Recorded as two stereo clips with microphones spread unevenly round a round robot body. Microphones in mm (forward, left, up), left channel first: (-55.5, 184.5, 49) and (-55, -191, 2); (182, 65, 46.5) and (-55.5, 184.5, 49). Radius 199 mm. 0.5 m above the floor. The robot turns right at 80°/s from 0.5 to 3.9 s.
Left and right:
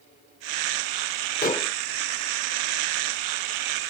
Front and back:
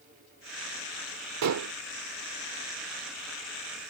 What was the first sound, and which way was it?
Dishes clattering, 155° left.